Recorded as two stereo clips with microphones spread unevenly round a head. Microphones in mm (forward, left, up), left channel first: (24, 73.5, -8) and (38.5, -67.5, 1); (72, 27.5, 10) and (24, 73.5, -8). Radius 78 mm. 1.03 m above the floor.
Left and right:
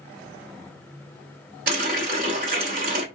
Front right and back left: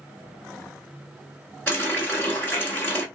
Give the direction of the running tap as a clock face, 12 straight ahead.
4 o'clock.